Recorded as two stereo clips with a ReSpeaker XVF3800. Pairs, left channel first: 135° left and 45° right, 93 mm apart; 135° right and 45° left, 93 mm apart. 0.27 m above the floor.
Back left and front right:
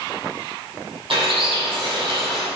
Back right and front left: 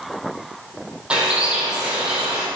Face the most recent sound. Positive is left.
turn(degrees=-35)